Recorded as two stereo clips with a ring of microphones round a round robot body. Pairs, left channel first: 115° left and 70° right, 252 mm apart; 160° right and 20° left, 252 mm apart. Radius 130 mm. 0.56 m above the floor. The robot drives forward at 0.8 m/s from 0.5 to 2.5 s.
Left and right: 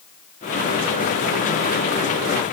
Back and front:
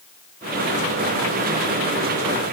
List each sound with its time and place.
Only background noise.